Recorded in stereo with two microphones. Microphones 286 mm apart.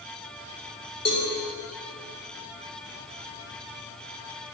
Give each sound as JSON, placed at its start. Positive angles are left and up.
{"t": 1.1, "sound": "a cowbell", "side_deg": 60, "distance_m": 5.0}